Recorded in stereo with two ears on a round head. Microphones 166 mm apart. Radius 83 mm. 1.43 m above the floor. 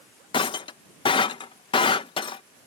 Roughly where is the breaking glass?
Left.